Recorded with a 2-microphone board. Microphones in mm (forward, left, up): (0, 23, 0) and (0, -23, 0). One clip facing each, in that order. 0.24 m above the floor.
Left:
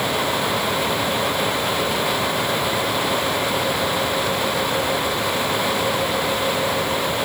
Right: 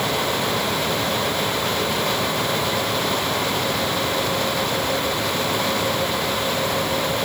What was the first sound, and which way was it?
Only background noise.